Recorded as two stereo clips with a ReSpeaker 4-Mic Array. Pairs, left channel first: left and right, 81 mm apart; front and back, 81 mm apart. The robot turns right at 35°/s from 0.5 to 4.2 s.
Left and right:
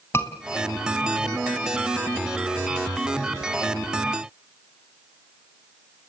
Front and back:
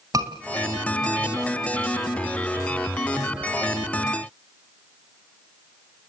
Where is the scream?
140° left, 2.5 m.